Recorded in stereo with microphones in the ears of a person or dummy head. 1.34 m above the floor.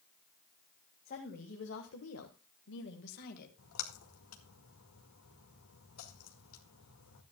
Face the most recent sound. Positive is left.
turn(degrees=85)